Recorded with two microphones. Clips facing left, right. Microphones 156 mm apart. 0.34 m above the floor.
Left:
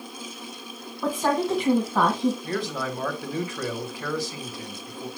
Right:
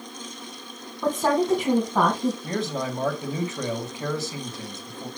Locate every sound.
1.0 s a woman speaking: 5° right (ahead or behind), 2.5 m
2.4 s a man speaking: 25° right (ahead or behind), 2 m